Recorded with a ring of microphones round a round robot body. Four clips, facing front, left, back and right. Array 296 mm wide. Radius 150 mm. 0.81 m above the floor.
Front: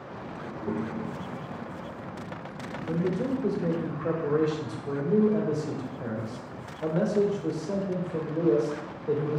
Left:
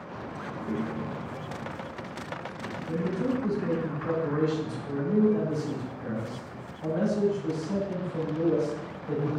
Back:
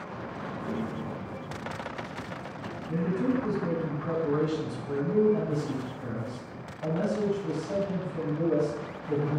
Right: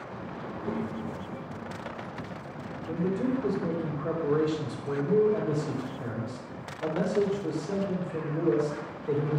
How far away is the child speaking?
About 1.6 m.